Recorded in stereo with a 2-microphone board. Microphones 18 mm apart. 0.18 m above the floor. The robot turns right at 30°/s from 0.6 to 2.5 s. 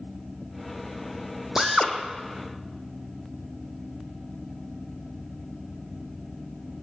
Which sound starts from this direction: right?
A drill, at 1.6 s.